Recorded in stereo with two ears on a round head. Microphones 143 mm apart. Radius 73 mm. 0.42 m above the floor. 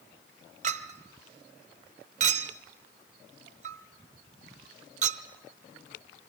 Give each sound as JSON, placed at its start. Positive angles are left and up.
{"t": 0.6, "sound": "a clink", "side_deg": -50, "distance_m": 0.7}